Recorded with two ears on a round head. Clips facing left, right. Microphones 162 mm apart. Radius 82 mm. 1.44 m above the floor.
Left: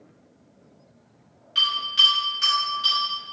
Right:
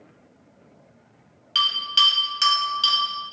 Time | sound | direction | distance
1.6 | a bell | 85° right | 1.5 m